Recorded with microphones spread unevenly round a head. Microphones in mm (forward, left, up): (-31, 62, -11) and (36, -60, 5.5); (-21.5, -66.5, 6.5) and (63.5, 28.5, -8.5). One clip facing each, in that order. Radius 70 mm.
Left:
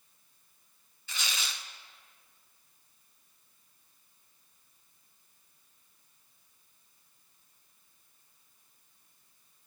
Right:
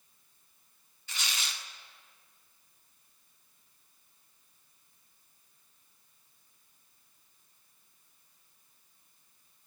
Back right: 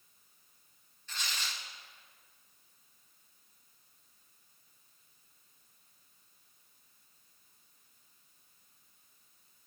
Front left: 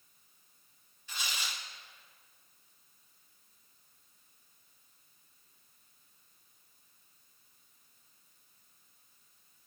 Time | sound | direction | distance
1.1 | tearing paper | 130° left | 0.5 m